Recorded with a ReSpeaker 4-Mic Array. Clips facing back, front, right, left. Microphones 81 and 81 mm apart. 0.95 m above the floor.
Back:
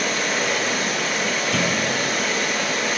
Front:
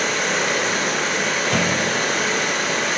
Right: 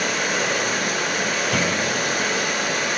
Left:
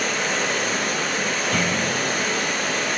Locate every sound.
0.0 s running water: 15° right, 3.5 m
1.5 s a clunk: 15° right, 3 m